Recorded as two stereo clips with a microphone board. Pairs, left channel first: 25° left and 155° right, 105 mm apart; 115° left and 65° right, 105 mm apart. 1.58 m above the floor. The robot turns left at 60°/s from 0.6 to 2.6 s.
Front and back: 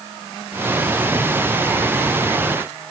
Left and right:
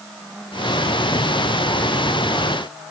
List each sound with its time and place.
Only background noise.